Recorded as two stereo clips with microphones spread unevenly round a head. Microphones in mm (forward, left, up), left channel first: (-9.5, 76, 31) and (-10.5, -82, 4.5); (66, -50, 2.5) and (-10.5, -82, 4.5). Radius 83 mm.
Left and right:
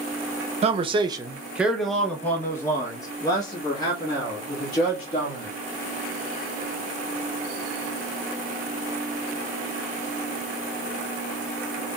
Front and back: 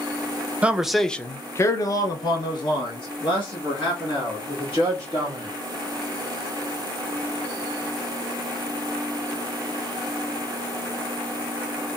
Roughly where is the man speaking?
Right.